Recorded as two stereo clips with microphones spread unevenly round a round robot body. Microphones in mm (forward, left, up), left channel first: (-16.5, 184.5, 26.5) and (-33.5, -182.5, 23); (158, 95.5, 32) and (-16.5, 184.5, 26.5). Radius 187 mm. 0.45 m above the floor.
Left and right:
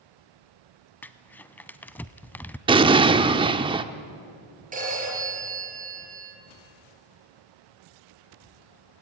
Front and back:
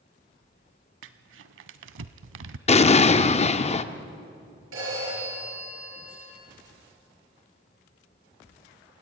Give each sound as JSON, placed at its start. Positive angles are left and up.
{"t": 1.0, "sound": "crumpling", "azimuth_deg": 170, "distance_m": 0.5}
{"t": 2.7, "sound": "an explosion", "azimuth_deg": -30, "distance_m": 0.8}
{"t": 4.7, "sound": "a phone ringing", "azimuth_deg": -160, "distance_m": 8.0}